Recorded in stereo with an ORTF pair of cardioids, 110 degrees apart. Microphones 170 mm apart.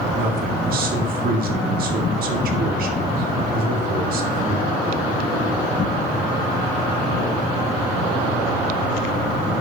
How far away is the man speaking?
About 1.8 m.